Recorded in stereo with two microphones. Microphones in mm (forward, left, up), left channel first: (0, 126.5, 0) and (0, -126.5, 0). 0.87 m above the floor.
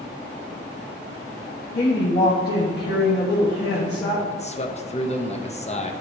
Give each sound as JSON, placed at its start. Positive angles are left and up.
{"t": 1.8, "sound": "a woman speaking", "side_deg": 45, "distance_m": 1.3}
{"t": 4.3, "sound": "a man speaking", "side_deg": 30, "distance_m": 0.7}